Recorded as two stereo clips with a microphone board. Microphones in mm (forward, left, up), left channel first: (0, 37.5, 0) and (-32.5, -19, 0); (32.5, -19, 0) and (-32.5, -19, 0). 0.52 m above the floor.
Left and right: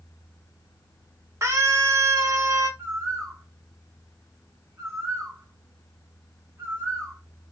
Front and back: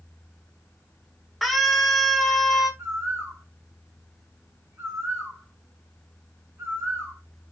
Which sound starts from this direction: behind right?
A bird, at 2.8 s.